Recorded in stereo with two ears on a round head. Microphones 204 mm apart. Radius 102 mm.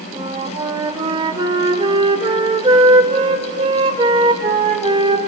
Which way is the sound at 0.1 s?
20° right (ahead or behind).